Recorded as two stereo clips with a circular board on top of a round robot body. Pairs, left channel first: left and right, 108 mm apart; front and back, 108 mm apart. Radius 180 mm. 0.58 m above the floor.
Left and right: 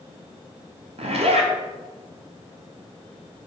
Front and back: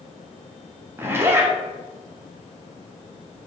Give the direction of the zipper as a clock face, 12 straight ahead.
4 o'clock.